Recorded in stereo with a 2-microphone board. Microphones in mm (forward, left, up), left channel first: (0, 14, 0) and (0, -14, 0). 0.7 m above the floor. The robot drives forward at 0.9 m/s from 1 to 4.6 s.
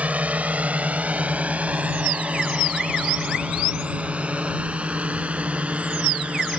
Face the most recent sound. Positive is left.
turn(degrees=-50)  # may be behind; listen again after turning